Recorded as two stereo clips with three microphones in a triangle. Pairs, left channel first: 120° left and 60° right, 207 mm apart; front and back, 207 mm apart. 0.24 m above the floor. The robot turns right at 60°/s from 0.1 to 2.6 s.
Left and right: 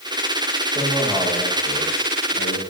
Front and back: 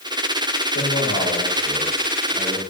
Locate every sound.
0.8 s a man speaking: 5° right, 8 m; by 2.6 s 105° left, 8 m